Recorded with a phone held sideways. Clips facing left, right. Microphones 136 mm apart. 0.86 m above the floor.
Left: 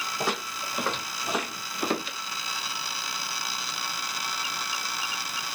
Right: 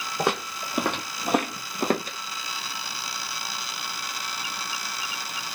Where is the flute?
I don't hear a flute.